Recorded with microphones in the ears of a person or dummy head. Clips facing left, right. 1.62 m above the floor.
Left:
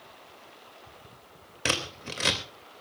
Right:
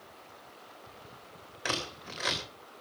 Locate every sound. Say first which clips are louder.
1.6 s scissors: left 4 dB; 45° left (ahead or behind), 3 m